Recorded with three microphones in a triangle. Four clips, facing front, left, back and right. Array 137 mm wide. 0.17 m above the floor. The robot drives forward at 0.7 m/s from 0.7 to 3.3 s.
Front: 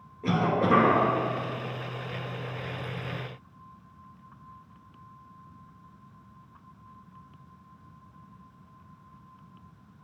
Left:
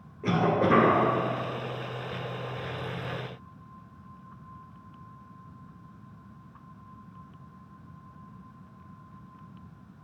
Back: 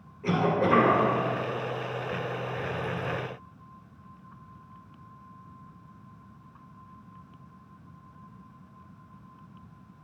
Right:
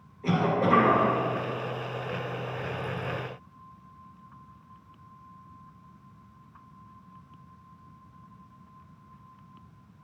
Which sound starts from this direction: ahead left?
A cough, at 0.2 s.